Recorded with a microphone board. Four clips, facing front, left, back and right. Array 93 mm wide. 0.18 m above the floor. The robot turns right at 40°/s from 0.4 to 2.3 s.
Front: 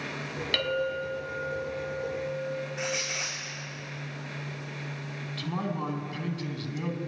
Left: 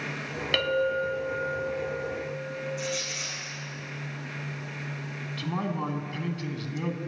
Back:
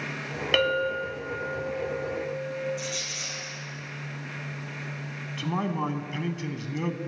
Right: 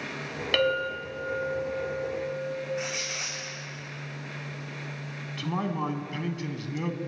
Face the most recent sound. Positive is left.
turn(degrees=-160)